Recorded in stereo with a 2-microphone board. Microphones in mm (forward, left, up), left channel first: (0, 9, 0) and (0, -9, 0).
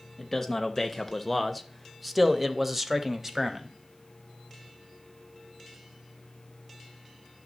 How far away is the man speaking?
About 1.1 m.